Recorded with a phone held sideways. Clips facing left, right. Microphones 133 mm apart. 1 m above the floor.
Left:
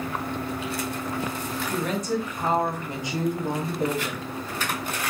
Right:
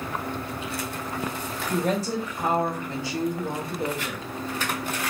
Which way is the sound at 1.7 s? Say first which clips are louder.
Right 2 dB; 45° right (ahead or behind).